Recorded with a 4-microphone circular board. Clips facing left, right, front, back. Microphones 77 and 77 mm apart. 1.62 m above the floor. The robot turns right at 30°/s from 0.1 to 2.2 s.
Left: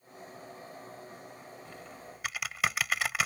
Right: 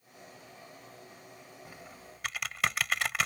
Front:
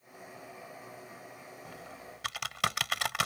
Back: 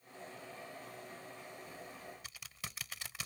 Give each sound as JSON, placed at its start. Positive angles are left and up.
{"t": 1.6, "sound": "typing on a keyboard", "azimuth_deg": -15}